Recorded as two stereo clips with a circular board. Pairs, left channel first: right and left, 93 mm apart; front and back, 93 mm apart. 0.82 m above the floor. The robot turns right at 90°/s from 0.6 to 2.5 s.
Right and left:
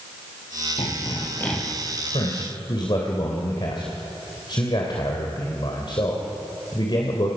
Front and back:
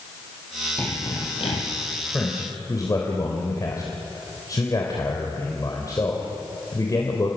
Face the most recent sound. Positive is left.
turn(degrees=-50)